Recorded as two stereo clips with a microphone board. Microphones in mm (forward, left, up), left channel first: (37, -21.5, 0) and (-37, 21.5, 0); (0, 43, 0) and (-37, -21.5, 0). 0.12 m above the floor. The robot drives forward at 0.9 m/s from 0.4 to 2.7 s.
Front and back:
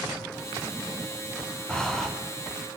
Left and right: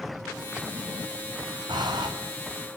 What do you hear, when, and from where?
1.7 s breathing: 110° right, 3.5 m; by 2.1 s 115° right, 3.5 m